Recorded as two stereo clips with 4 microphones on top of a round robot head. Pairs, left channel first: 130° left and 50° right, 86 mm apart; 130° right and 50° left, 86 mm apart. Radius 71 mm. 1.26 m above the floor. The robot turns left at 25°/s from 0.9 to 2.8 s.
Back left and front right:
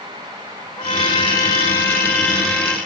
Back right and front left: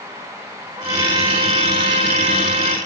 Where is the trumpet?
100° left, 0.6 m; by 2.8 s 50° left, 0.6 m.